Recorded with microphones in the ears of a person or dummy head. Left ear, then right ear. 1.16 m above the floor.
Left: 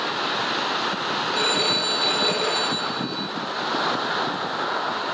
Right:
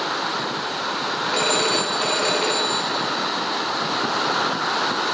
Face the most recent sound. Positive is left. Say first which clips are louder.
# right 1 dB
turn(degrees=-20)  # may be behind; listen again after turning